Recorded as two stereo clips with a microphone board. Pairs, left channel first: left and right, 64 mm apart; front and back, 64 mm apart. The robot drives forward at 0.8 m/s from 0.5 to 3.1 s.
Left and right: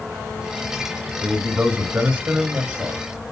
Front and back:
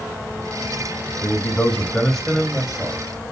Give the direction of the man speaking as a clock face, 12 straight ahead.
1 o'clock.